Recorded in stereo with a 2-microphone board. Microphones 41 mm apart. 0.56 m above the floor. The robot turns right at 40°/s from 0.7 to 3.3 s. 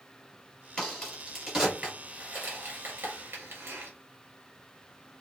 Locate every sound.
0.8 s a crack: 20° left (ahead or behind), 2 m; by 3.9 s 80° right, 2 m